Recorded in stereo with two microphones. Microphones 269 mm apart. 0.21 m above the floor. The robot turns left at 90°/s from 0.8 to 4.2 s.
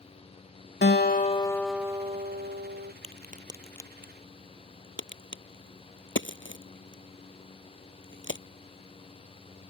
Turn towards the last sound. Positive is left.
turn(degrees=45)  # may be behind; listen again after turning